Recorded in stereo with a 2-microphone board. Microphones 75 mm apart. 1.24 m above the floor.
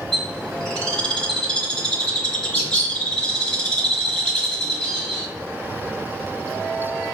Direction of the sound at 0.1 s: 10° left (ahead or behind).